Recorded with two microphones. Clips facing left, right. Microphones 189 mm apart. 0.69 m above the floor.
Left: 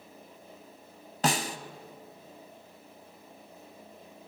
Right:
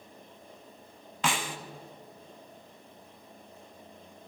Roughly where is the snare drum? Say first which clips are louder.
Left 3 dB; left.